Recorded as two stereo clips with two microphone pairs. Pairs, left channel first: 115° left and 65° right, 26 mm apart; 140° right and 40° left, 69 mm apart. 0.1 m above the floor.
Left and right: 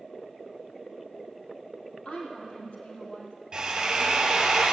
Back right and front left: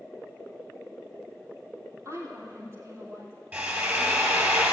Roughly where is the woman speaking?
Left.